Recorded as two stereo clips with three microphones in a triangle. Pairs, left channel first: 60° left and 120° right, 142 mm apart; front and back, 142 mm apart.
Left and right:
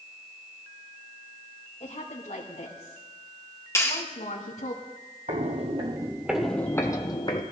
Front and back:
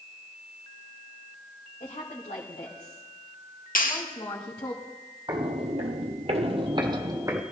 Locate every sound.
1.8 s a woman speaking: 25° left, 3 m; by 4.8 s 55° left, 3.5 m
3.8 s a clap: 10° right, 1.4 m
5.3 s footsteps: 130° right, 1.6 m; by 7.4 s 110° left, 2 m